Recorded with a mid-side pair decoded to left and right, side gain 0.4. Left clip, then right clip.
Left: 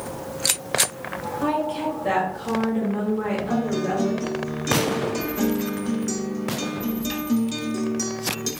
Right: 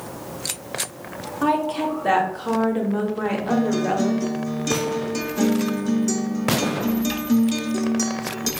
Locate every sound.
1.4 s a woman speaking: 45° right, 1.5 m
3.5 s a guitar: 25° right, 0.6 m